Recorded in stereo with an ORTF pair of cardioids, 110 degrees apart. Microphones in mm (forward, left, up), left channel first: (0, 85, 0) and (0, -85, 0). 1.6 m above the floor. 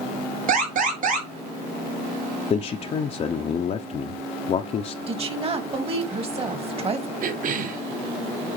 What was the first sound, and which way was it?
An alarm, 55° right.